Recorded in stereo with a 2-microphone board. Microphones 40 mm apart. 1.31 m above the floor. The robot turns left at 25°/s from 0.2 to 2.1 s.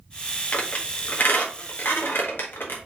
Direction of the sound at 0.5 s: 35° left (ahead or behind).